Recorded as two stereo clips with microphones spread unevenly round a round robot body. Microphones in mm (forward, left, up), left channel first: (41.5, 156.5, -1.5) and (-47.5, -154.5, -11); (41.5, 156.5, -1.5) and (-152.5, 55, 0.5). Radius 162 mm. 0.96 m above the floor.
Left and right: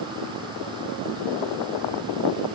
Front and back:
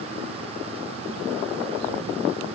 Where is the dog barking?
No dog barking in this recording.